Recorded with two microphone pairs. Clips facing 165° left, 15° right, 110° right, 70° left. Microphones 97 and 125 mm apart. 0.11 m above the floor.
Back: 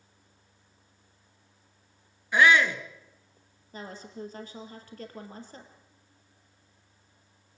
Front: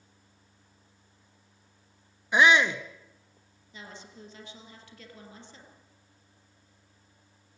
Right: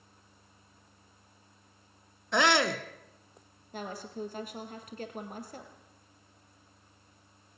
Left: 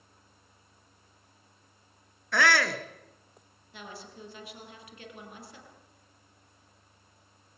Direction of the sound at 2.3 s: 65° right.